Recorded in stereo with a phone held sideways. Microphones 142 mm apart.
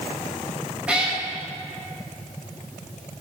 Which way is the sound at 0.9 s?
10° right (ahead or behind).